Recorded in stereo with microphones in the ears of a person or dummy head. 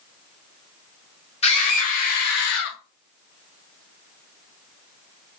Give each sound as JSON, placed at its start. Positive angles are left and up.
{"t": 1.4, "sound": "a scream", "side_deg": 40, "distance_m": 1.1}